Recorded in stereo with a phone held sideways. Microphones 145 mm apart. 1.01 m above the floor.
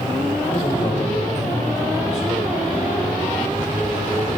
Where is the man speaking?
55° left (ahead or behind), 4 m; by 2.5 s 50° left (ahead or behind), 7.5 m.